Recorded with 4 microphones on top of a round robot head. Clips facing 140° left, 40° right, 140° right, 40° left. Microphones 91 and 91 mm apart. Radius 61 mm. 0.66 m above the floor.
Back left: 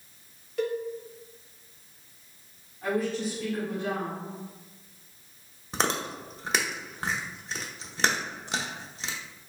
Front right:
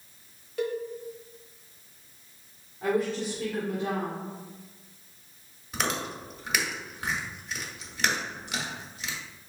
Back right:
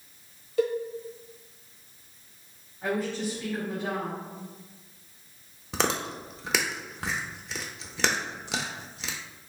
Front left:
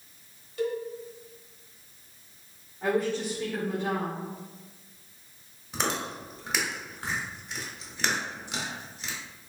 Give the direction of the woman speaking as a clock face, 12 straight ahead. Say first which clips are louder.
Front right 1 dB, front left 2 dB; 12 o'clock.